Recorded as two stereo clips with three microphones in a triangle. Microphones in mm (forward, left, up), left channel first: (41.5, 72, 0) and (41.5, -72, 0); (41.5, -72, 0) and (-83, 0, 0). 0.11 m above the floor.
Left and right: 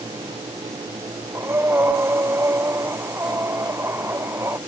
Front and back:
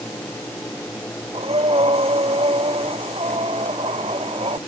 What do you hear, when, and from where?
1.3 s breathing: 165° right